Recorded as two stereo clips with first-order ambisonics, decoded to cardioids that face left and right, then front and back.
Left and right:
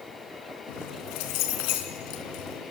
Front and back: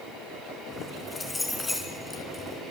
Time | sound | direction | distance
0.7 | keys jangling | 80° left | 3.5 m